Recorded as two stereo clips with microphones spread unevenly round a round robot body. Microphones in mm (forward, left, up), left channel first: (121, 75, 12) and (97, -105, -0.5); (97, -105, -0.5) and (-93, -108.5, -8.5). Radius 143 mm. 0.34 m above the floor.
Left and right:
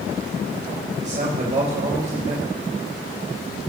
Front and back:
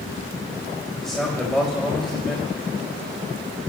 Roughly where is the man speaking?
Right.